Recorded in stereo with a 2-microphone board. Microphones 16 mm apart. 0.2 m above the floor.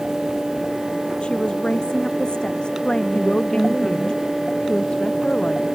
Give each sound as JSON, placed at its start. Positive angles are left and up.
{"t": 1.2, "sound": "a woman speaking", "side_deg": 75}
{"t": 3.1, "sound": "a woman speaking", "side_deg": 80}